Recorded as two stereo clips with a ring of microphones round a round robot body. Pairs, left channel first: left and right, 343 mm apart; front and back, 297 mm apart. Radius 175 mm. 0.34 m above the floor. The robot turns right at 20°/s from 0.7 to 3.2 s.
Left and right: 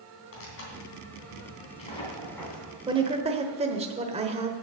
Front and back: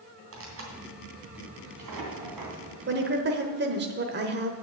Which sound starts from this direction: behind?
A woman speaking, at 2.9 s.